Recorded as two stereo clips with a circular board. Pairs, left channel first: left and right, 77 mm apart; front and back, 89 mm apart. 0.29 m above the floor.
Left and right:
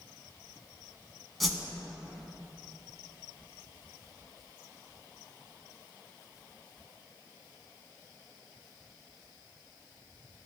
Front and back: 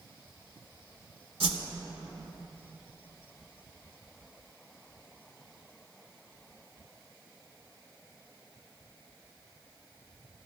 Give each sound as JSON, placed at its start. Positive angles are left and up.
{"t": 1.4, "sound": "a whoosh", "azimuth_deg": 180, "distance_m": 0.6}